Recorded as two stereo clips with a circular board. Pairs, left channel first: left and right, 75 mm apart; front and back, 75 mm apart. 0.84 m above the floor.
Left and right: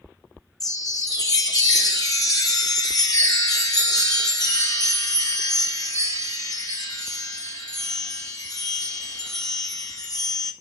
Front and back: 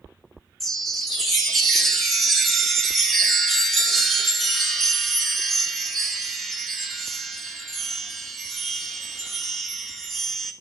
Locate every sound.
0.6 s a chime: 85° left, 1.2 m